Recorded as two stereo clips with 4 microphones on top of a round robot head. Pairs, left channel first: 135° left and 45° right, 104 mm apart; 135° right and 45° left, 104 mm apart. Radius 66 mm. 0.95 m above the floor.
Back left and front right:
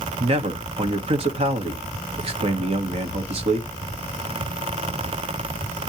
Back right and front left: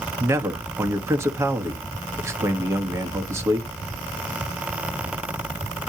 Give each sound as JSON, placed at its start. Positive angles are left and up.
{"t": 0.2, "sound": "a man speaking", "azimuth_deg": -20, "distance_m": 1.5}